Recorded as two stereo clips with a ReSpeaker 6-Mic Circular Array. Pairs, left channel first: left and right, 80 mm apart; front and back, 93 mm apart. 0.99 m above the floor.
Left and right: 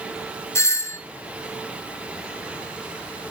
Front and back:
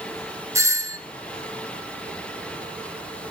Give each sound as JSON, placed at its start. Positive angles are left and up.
{"t": 0.6, "sound": "a doorbell", "azimuth_deg": 130, "distance_m": 2.0}